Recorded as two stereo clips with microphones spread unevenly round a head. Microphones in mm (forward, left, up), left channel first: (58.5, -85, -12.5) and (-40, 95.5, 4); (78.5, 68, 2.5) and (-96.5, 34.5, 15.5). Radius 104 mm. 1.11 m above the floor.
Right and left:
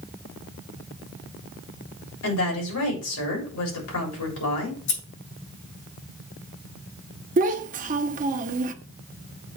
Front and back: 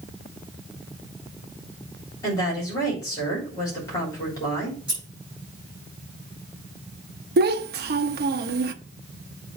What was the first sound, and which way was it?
A woman speaking, 65° right.